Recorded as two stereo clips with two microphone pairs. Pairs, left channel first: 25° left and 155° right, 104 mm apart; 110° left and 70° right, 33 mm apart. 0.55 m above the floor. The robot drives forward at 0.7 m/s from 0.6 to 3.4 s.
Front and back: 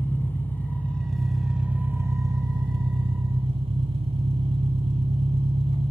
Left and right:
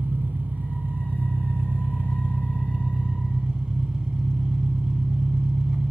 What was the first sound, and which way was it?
An engine running, 50° right.